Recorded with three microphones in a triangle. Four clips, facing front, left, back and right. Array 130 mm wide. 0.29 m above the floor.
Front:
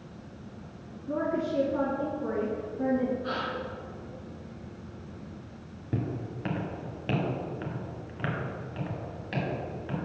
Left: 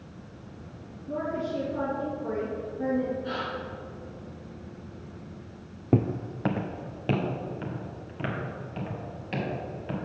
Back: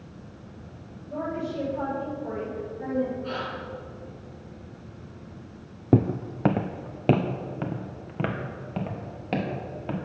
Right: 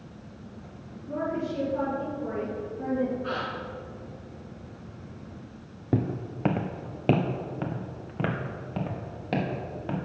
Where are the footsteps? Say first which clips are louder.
Left 3 dB, back 11 dB; 170° left, 0.5 m; by 10.0 s 140° right, 3 m.